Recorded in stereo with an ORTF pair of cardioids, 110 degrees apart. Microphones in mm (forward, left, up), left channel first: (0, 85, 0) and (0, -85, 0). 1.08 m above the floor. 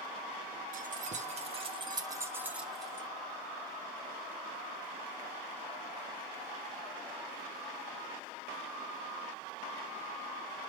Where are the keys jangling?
50° right, 1.5 m; by 3.1 s 10° left, 1.2 m.